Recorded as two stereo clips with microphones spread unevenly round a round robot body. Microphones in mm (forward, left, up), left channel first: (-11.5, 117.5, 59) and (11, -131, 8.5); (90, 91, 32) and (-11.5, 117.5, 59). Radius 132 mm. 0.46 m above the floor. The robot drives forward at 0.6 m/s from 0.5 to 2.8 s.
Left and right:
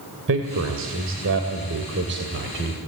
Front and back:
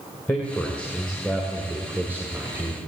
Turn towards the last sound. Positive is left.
turn(degrees=-120)